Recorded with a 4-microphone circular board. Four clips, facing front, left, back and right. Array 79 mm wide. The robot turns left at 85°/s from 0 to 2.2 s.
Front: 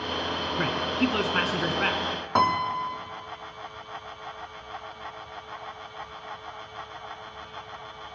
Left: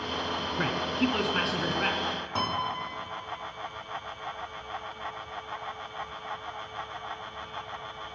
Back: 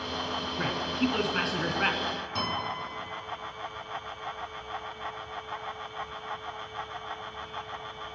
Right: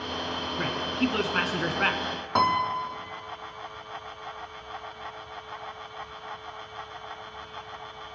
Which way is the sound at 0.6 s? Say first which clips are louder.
Even, front 3 dB; 25° left.